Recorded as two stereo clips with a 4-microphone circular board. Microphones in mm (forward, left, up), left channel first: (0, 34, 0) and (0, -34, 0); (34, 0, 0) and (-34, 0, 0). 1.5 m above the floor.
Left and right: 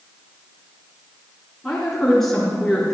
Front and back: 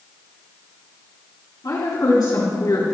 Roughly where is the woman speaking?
Ahead.